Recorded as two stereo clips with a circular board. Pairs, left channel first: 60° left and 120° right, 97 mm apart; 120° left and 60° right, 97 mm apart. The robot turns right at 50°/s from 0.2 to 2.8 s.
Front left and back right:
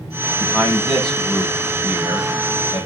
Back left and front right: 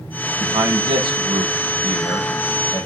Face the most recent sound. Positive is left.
turn(degrees=60)